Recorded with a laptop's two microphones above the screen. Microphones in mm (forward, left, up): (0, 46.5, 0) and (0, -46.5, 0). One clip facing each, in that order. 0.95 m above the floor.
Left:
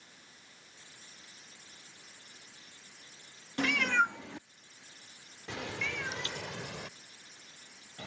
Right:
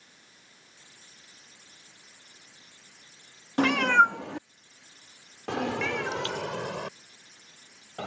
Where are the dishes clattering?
I don't hear dishes clattering.